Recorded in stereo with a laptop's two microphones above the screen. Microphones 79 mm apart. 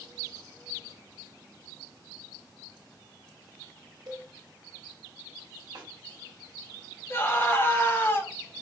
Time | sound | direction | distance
4.1 | a cowbell | 55° right (ahead or behind) | 1.1 m
5.8 | a snare drum | 45° right (ahead or behind) | 1.9 m
7.1 | a scream | 30° left (ahead or behind) | 1.2 m